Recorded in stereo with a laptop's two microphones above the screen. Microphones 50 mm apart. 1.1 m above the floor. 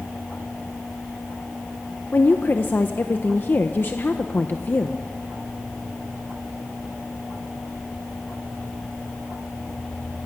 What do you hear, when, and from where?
2.1 s a woman speaking: 40° left (ahead or behind), 0.9 m